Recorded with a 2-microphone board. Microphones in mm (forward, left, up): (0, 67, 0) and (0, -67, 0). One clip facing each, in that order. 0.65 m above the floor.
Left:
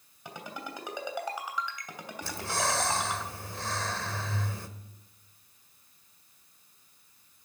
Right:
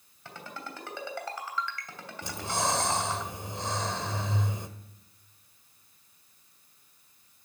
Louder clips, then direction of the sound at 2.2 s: Right 1 dB; 20° right (ahead or behind).